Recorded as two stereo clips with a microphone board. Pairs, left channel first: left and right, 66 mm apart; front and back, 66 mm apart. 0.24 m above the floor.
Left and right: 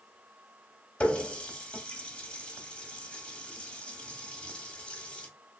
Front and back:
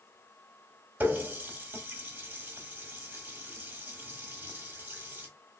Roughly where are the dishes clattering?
I don't hear dishes clattering.